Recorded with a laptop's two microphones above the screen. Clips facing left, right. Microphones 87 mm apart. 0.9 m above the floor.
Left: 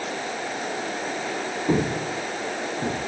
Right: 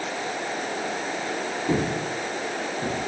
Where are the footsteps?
15° left (ahead or behind), 2.5 m; by 3.0 s 25° left (ahead or behind), 3.5 m.